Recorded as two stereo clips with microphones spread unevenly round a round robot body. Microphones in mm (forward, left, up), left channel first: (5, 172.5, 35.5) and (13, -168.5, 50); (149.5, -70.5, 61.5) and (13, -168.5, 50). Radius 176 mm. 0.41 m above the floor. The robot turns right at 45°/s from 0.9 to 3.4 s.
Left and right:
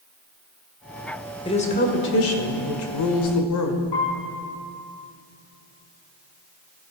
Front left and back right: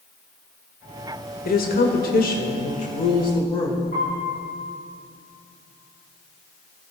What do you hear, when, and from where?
1.4 s a woman speaking: 20° left, 1.5 m; by 3.8 s 105° left, 1.5 m
3.9 s a piano: 100° left, 4.5 m